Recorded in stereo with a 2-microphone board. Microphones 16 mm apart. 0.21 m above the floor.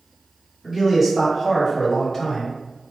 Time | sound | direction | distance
0.6 | a man speaking | 25° right (ahead or behind) | 1.7 m